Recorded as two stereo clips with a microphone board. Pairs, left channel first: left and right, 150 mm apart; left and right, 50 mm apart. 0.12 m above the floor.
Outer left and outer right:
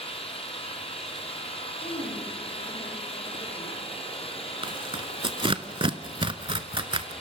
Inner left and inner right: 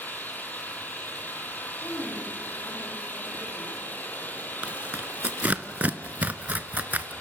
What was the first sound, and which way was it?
An engine running, 40° left (ahead or behind).